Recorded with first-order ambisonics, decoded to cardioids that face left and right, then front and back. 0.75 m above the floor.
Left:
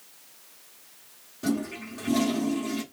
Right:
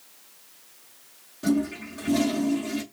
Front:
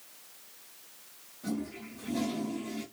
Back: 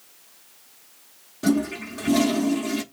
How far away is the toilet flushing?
About 0.6 m.